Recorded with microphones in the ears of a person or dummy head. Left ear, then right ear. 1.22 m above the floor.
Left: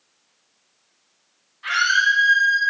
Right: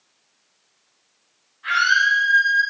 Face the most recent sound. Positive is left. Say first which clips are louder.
# right 1 dB
turn(degrees=70)  # may be behind; listen again after turning